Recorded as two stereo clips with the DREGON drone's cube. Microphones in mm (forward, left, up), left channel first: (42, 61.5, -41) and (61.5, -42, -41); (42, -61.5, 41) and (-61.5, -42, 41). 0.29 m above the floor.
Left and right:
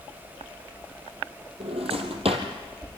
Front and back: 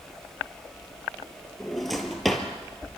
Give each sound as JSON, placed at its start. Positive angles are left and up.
{"t": 1.6, "sound": "a drawer", "azimuth_deg": -100, "distance_m": 2.5}